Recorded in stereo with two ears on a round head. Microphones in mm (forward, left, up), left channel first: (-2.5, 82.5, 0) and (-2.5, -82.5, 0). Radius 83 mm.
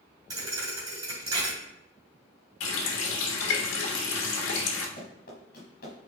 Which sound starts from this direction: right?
A thud, at 0.3 s.